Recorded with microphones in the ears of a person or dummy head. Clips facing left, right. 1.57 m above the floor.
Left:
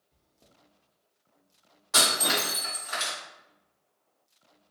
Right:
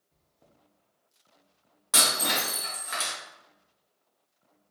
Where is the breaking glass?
55° right (ahead or behind), 1.1 m.